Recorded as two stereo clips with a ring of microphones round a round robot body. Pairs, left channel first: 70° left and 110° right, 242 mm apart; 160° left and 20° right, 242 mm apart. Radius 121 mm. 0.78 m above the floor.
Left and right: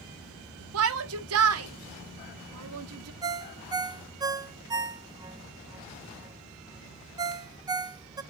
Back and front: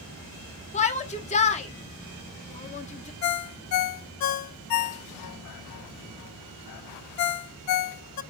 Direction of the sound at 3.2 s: 175° left.